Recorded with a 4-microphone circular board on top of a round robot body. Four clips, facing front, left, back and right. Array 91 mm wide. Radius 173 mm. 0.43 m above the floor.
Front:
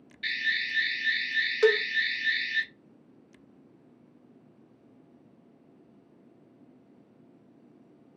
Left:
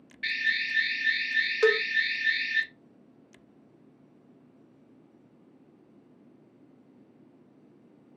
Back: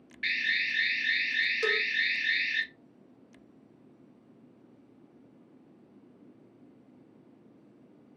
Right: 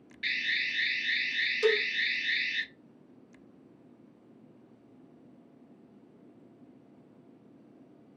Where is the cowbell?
50° left, 0.8 m.